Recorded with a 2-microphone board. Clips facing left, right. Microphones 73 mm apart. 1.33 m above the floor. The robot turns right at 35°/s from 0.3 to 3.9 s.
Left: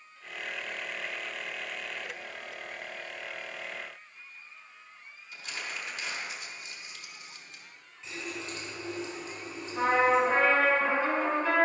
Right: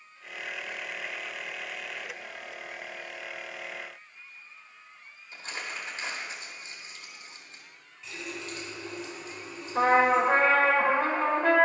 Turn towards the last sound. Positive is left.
turn(degrees=-55)  # may be behind; listen again after turning